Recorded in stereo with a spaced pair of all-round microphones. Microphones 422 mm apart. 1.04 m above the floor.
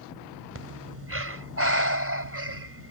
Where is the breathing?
30° right (ahead or behind).